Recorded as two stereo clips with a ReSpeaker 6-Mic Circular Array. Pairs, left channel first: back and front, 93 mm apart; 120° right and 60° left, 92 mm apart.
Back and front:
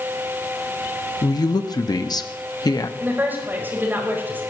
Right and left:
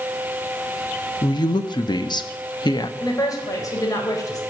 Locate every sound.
1.2 s a woman speaking: 145° right, 1.1 m
3.0 s a woman speaking: 70° right, 4.5 m